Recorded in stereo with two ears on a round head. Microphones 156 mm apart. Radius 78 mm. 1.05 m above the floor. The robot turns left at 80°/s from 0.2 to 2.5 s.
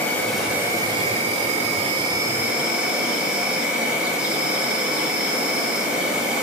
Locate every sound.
0.0 s an insect: 15° left, 1.1 m; by 6.4 s 170° right, 1.1 m